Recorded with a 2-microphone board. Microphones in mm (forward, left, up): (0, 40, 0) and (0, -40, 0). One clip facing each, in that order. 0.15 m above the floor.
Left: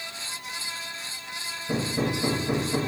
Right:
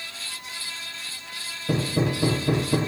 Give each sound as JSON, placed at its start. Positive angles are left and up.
{"t": 1.7, "sound": "hammering", "side_deg": -60, "distance_m": 4.5}